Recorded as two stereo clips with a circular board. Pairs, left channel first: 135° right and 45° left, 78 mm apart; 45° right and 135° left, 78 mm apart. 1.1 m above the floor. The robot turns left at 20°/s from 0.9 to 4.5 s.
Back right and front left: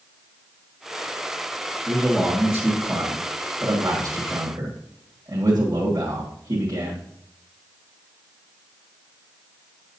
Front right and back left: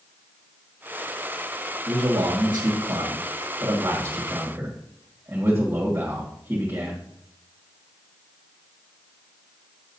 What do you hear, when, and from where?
1.9 s a man speaking: 130° left, 1.7 m; by 7.0 s 80° left, 1.7 m